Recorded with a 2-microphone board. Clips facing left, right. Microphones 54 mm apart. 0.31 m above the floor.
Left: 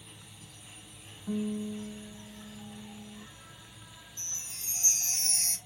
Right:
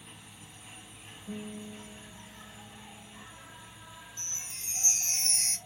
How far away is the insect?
About 0.8 m.